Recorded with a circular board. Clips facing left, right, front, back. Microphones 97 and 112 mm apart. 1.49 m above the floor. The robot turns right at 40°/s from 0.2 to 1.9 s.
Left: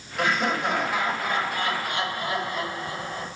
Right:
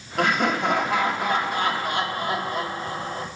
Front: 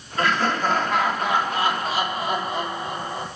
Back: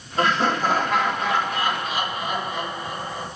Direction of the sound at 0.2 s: 120° right.